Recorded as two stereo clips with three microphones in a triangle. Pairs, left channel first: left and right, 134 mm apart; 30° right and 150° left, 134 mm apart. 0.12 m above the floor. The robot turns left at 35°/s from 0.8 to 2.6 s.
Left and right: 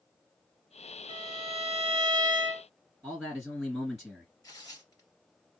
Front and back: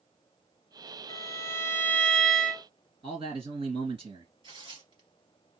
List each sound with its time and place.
1.1 s a violin: 75° right, 0.6 m; by 2.7 s 125° right, 0.6 m
3.0 s a man speaking: straight behind, 2.5 m
4.4 s tearing paper: 135° left, 2.0 m